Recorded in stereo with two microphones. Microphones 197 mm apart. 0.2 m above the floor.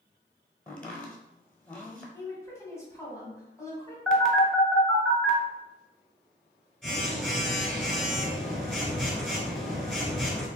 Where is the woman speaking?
15° left (ahead or behind), 1.0 m.